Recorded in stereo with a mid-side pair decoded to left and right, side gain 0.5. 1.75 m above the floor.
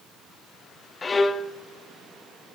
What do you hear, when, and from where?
1.0 s a violin: 30° left, 0.7 m